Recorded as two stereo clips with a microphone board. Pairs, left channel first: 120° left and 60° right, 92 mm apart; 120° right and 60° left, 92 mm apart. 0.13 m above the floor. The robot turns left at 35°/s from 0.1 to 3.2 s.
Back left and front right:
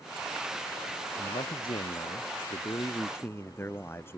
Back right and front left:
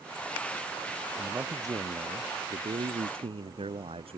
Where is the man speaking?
125° left; by 4.2 s 55° left.